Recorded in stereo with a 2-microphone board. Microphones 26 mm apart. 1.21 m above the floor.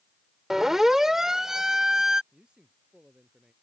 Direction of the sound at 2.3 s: 40° right (ahead or behind).